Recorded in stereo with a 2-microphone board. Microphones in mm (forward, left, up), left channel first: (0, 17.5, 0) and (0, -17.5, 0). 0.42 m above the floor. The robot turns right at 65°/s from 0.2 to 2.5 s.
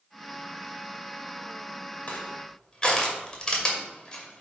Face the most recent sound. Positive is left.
turn(degrees=25)  # may be behind; listen again after turning